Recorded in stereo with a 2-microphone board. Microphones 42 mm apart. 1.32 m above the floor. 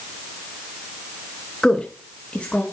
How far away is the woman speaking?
About 1.2 m.